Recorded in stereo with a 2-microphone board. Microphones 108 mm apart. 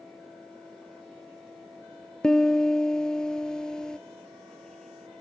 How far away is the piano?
About 1.0 m.